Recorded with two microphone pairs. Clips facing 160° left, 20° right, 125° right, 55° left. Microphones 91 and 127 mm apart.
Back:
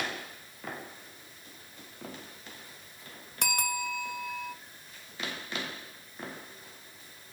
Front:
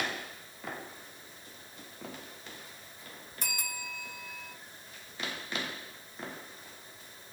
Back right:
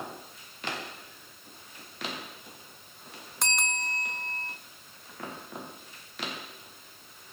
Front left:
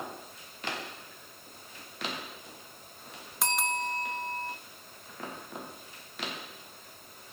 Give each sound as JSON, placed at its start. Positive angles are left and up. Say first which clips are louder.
{"t": 3.4, "sound": "a bell", "louder": "back 10 dB, front left 4 dB", "azimuth_deg": 140, "distance_m": 0.9}